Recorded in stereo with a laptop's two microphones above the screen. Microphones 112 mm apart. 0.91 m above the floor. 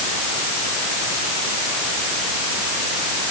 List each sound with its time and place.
Only background noise.